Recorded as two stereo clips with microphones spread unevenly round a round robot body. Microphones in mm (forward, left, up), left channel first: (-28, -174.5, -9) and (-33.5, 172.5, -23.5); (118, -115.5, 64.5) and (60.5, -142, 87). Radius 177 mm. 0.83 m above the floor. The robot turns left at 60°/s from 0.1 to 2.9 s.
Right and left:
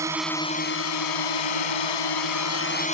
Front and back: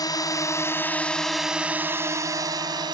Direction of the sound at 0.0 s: 10° left.